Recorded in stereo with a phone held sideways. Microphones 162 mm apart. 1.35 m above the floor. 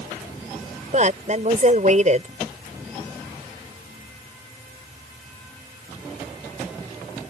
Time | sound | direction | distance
0.9 | a woman speaking | 50° right (ahead or behind) | ?